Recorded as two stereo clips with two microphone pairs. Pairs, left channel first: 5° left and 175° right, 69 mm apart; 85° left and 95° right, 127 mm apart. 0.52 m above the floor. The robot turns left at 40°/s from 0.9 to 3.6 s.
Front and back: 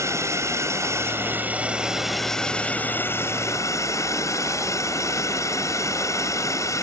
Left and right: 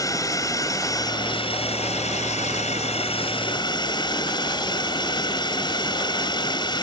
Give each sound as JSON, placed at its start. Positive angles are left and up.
{"t": 0.0, "sound": "a drone", "azimuth_deg": 145}